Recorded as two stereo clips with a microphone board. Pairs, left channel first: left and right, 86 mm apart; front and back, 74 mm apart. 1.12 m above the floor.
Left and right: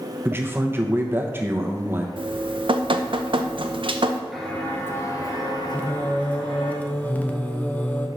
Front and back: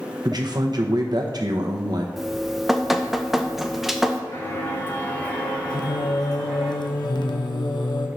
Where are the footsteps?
5° left, 1.2 m; by 6.7 s 85° left, 2.5 m.